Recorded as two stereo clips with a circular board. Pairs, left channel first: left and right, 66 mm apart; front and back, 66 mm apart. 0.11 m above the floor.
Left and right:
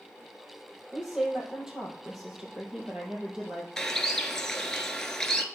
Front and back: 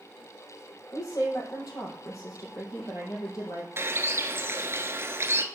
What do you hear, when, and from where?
0.9 s a woman speaking: 10° right, 3.5 m
3.8 s a bird: 165° left, 0.9 m